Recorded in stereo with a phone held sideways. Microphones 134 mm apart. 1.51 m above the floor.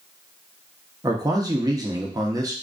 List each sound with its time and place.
1.0 s a man speaking: 30° right (ahead or behind), 0.6 m